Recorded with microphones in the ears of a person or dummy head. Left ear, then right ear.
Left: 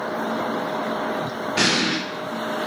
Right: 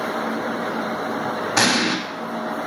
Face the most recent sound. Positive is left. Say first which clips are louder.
# right 1 dB
turn(degrees=-45)  # may be behind; listen again after turning